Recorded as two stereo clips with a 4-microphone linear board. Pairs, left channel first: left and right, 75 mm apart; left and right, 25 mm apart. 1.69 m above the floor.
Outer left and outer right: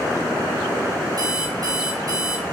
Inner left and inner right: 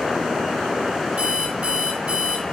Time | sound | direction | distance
1.2 | an alarm clock | 55° right (ahead or behind) | 4.5 m